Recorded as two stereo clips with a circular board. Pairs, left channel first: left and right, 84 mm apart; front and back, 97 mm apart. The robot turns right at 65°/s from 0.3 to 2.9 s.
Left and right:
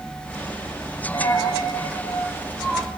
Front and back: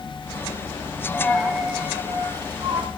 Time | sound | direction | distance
1.1 | a dropped coin | 65° left | 2.0 m